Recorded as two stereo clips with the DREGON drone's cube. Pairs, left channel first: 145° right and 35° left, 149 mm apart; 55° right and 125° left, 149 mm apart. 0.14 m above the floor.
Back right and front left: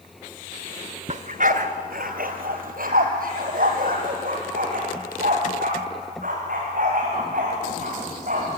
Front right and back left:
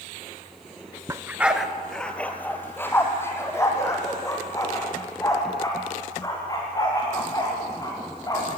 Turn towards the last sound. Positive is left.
turn(degrees=10)